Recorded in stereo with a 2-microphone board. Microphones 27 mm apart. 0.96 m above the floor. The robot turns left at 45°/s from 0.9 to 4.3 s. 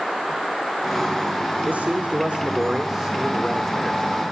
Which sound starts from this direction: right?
A man speaking, at 1.6 s.